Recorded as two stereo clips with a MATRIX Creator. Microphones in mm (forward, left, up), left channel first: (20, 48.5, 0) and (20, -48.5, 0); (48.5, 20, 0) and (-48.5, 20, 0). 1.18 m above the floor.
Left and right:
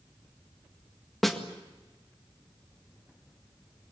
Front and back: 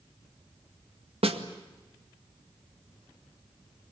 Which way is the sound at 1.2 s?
Straight behind.